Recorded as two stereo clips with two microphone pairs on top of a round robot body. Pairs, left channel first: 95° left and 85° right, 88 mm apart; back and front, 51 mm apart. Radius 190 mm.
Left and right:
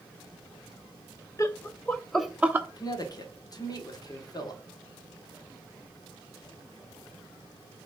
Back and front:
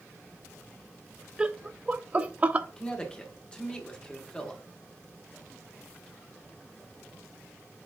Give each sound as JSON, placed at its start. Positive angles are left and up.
{"t": 1.4, "sound": "laughter", "azimuth_deg": 65, "distance_m": 1.0}
{"t": 2.8, "sound": "a man speaking", "azimuth_deg": 105, "distance_m": 2.5}